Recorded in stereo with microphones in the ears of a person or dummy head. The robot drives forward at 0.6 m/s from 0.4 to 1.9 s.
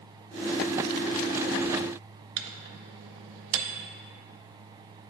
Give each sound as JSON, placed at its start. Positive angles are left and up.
{"t": 2.4, "sound": "a microwave", "side_deg": -65, "distance_m": 0.5}